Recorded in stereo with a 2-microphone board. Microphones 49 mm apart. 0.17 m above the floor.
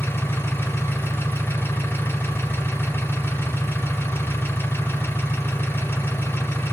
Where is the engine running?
55° left (ahead or behind), 2.5 m.